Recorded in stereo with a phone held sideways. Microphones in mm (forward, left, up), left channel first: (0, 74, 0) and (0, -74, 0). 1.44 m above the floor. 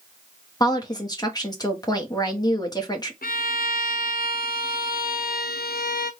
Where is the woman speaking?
25° left (ahead or behind), 1.2 m.